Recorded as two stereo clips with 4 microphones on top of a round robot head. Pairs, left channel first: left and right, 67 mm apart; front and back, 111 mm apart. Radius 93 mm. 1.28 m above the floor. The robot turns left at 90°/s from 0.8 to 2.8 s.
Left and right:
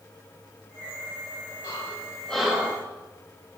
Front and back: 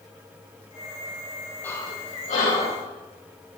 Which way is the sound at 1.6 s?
70° left.